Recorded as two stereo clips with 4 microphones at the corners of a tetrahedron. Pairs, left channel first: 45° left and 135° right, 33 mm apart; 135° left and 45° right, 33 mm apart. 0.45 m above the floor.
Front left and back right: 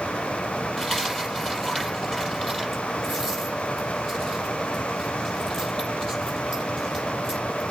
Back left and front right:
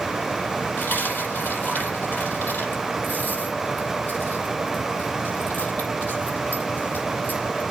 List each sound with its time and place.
0.8 s a dropped coin: 125° left, 5.5 m